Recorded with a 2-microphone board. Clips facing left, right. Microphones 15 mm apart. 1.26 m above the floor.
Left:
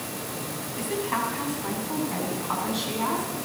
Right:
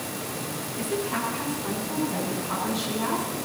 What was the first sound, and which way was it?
A woman speaking, 45° left (ahead or behind).